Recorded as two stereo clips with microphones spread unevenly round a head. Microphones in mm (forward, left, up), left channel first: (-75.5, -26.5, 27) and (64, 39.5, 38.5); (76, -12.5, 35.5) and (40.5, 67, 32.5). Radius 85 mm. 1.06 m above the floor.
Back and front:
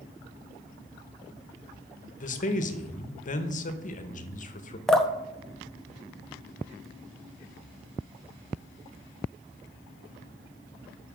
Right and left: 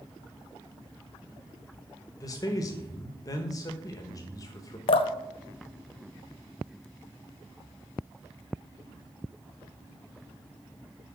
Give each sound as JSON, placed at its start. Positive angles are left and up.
{"t": 2.2, "sound": "a man speaking", "azimuth_deg": -120, "distance_m": 1.2}
{"t": 4.9, "sound": "dripping", "azimuth_deg": -65, "distance_m": 0.6}